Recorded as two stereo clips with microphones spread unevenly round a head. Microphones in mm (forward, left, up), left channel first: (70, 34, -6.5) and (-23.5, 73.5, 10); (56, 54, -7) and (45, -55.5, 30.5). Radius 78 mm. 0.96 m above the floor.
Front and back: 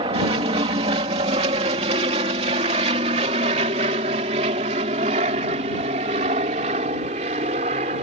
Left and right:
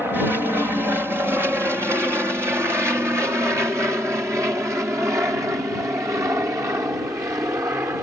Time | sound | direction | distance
0.0 | an aircraft | 175° left | ?